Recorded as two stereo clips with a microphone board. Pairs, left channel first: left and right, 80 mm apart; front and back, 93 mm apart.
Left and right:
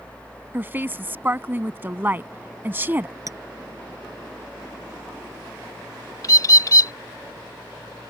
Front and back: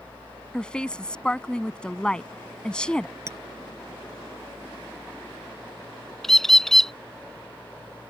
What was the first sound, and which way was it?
A woman speaking, 65° right.